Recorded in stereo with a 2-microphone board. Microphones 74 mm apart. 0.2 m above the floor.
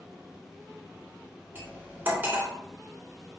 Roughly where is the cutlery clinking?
Right.